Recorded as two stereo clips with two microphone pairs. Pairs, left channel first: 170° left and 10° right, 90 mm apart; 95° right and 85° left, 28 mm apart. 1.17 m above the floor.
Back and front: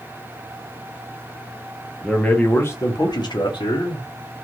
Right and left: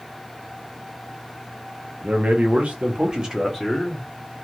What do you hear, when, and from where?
2.0 s a man speaking: 85° left, 1.1 m; by 4.1 s straight behind, 1.2 m